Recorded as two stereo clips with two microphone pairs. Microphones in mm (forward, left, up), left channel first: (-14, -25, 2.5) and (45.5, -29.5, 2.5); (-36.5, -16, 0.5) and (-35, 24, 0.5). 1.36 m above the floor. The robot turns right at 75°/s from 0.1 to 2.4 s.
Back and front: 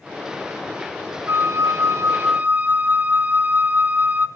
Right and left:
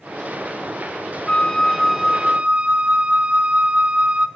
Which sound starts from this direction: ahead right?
A flute, at 1.3 s.